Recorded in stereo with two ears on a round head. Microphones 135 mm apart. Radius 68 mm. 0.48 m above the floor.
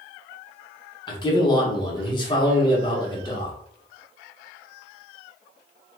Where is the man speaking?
30° left (ahead or behind), 0.9 m.